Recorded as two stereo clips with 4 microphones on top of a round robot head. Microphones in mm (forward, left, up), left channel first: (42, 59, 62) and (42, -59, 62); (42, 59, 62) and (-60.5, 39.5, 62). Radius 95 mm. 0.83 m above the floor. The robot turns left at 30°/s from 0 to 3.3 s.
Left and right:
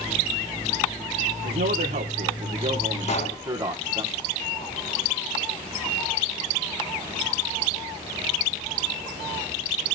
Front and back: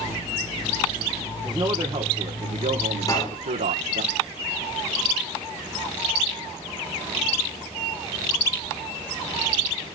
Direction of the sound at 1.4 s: 95° right.